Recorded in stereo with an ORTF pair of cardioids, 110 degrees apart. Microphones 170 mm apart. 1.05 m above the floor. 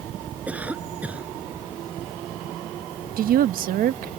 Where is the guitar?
No guitar in this recording.